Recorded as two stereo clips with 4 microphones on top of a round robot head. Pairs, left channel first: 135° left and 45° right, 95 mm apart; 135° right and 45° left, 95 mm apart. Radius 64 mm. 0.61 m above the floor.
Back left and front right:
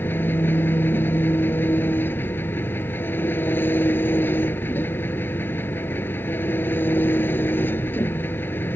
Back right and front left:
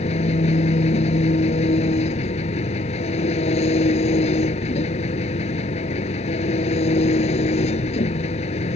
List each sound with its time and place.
0.0 s an engine running: 155° right